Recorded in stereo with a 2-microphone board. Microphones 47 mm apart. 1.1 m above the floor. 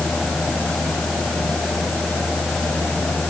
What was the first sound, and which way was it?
Only background noise.